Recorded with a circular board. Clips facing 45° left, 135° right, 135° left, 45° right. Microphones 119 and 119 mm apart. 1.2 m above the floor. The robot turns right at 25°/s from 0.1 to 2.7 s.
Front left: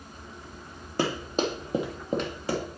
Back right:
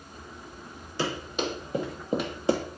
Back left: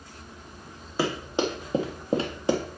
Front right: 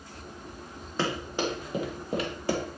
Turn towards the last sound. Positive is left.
turn(degrees=-160)